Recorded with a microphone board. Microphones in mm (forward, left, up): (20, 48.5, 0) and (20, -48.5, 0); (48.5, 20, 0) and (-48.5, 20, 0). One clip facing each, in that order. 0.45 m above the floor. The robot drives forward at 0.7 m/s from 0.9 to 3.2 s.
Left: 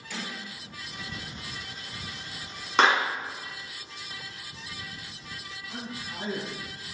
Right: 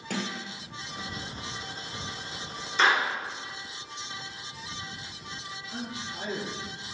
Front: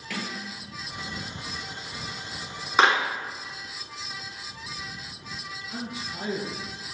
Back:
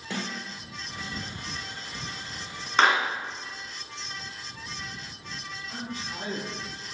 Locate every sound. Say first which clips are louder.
0.1 s a sliding door: right 4 dB, even; 120° right, 1.2 m; by 1.2 s 125° right, 1.3 m
2.8 s a clap: left 2 dB, front 1 dB; 80° left, 3 m; by 3.0 s 85° left, 3 m
5.7 s a man speaking: right 1 dB, front 1 dB; 140° left, 3 m